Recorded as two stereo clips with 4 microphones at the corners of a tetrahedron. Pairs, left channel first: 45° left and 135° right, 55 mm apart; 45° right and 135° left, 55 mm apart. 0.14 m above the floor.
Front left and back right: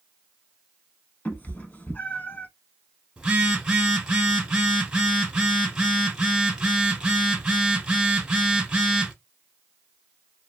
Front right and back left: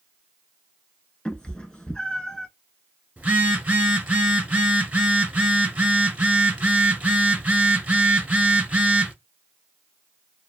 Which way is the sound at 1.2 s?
20° left.